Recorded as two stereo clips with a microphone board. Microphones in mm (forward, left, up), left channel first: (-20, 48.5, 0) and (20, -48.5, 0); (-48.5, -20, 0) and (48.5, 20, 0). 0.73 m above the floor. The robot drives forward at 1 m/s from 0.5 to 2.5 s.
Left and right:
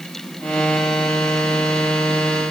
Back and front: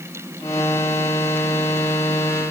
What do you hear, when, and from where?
Only background noise.